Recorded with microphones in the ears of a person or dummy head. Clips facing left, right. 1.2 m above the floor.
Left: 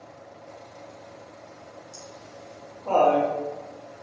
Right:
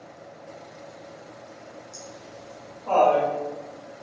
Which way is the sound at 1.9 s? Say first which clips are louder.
Right 2 dB; 45° left (ahead or behind).